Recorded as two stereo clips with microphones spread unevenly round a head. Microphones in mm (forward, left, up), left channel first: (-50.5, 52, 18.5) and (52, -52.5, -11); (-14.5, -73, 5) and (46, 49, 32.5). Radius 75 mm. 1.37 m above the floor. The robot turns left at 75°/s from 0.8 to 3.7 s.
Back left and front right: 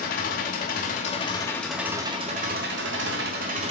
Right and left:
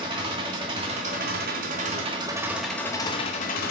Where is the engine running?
115° left, 1.5 m; by 3.7 s 100° right, 1.5 m.